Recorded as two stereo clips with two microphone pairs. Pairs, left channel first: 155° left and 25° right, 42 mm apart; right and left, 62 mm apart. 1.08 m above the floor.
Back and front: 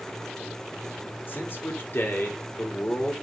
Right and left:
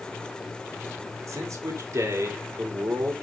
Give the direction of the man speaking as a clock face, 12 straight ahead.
8 o'clock.